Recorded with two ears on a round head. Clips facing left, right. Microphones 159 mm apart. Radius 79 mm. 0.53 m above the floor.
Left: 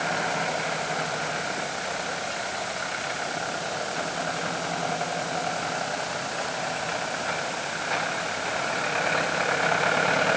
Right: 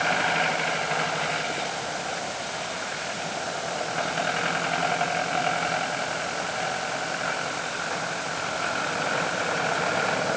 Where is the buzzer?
I don't hear a buzzer.